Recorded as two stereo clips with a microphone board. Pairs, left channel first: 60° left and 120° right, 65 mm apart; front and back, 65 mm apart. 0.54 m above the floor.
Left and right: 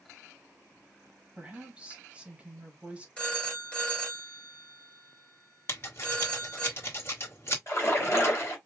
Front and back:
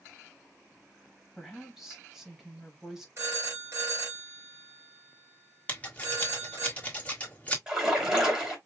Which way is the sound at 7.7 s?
105° left.